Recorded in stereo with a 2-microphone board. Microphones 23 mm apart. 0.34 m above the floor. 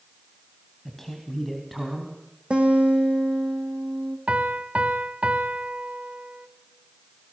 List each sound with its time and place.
0.8 s a man speaking: 5° left (ahead or behind), 2.5 m; by 2.1 s 5° right (ahead or behind), 3.5 m
2.5 s a guitar: 50° right (ahead or behind), 3.5 m
4.3 s a piano: 65° right (ahead or behind), 0.9 m